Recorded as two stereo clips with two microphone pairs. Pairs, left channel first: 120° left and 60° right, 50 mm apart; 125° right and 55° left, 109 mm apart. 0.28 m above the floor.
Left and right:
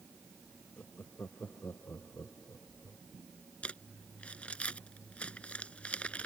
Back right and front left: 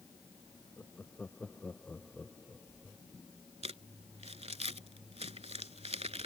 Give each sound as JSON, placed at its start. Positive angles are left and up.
{"t": 0.8, "sound": "laughter", "azimuth_deg": 160}
{"t": 3.6, "sound": "crumpling", "azimuth_deg": 60}